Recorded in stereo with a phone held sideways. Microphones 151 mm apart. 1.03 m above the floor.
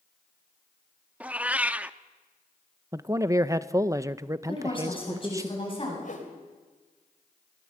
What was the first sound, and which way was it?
A cat meowing, 10° right (ahead or behind).